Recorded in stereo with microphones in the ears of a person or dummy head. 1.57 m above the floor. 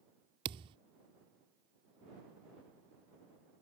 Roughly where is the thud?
Right.